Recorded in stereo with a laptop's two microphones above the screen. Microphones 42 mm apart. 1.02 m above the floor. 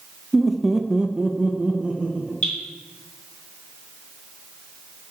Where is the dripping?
35° left (ahead or behind), 2 m.